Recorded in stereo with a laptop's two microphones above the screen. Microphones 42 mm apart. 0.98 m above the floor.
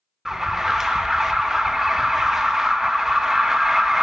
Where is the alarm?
10° right (ahead or behind), 0.6 m.